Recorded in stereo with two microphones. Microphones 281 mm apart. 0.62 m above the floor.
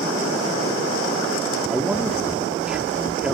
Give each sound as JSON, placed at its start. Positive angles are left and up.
{"t": 1.7, "sound": "a man speaking", "side_deg": -5, "distance_m": 1.5}